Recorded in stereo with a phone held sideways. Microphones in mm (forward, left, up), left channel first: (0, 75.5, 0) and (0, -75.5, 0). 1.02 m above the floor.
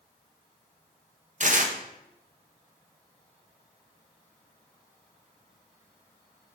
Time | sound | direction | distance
1.4 | tearing paper | 55° right (ahead or behind) | 1.1 m